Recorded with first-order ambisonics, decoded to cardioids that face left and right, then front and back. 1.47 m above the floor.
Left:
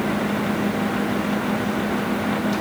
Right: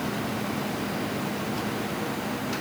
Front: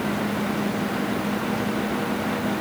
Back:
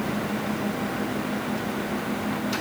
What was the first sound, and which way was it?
Only background noise.